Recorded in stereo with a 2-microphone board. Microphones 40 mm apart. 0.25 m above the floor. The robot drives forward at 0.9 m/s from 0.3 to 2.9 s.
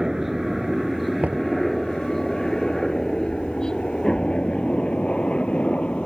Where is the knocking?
40° right (ahead or behind).